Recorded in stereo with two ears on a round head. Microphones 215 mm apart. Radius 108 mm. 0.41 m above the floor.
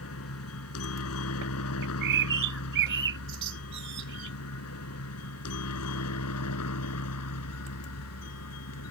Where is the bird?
55° right (ahead or behind).